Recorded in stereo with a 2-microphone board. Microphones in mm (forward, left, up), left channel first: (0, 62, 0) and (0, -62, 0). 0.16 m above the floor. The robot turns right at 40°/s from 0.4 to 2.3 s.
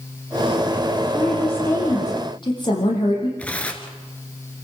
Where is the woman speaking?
5° right, 6.5 m; by 3.3 s 45° left, 6.5 m.